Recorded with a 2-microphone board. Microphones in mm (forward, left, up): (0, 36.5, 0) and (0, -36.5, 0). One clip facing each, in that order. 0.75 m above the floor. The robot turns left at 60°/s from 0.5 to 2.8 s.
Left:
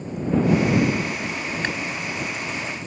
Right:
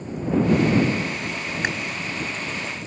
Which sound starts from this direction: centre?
Chewing, at 1.6 s.